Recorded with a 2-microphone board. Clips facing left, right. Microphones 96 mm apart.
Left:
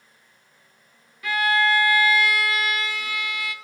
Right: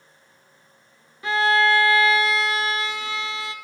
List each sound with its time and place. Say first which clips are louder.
1.2 s a violin: right 2 dB; 25° right (ahead or behind), 0.6 m